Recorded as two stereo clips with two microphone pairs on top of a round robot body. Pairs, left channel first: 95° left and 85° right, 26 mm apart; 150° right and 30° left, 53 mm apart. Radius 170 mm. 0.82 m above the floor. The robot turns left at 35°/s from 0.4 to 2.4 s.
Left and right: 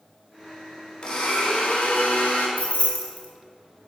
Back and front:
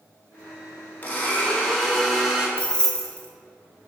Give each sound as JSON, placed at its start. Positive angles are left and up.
{"t": 1.0, "sound": "a blender", "azimuth_deg": 155, "distance_m": 1.6}
{"t": 2.6, "sound": "keys jangling", "azimuth_deg": 135, "distance_m": 1.1}